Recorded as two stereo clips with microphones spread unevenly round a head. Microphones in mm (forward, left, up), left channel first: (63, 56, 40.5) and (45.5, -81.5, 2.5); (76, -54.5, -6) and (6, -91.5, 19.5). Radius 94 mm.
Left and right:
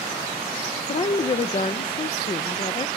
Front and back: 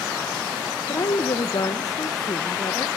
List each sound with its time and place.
0.9 s a woman speaking: 25° left, 1.1 m